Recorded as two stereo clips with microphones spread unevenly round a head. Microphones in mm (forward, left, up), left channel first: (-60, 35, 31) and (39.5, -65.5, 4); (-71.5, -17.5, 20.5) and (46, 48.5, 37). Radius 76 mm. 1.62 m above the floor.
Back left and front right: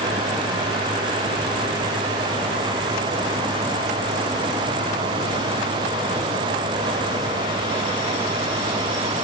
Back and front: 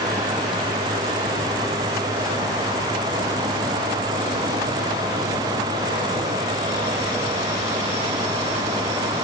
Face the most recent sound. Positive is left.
No sound to turn to.